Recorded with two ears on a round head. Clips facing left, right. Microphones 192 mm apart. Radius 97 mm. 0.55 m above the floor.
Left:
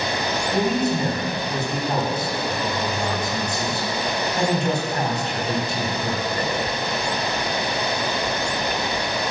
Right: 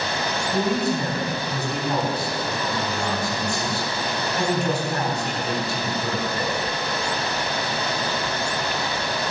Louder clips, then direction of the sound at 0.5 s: Left 1 dB; 15° left (ahead or behind).